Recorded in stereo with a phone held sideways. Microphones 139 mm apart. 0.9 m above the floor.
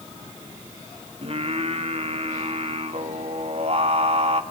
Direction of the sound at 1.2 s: 50° right (ahead or behind).